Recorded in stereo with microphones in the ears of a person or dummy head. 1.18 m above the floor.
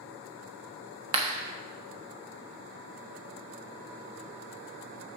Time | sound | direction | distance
1.1 | a clap | 20° right (ahead or behind) | 1.1 m